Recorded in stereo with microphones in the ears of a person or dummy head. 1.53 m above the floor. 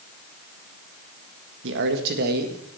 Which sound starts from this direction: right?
A man speaking, at 1.6 s.